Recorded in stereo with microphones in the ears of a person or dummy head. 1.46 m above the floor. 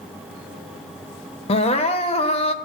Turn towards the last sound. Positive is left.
turn(degrees=30)  # may be behind; listen again after turning